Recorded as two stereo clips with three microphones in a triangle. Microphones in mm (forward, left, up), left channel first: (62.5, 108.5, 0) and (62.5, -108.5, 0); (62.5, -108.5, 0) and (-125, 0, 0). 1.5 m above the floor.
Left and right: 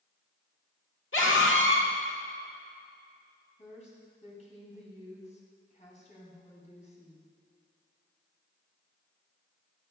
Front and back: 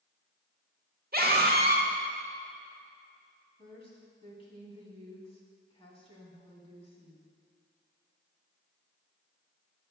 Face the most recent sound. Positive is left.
turn(degrees=30)